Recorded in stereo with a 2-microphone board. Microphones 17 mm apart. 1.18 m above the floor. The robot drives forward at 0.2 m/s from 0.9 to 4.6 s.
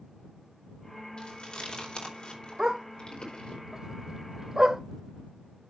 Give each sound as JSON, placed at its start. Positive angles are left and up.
{"t": 1.2, "sound": "chewing", "side_deg": 80, "distance_m": 4.0}
{"t": 2.6, "sound": "a dog barking", "side_deg": -40, "distance_m": 1.3}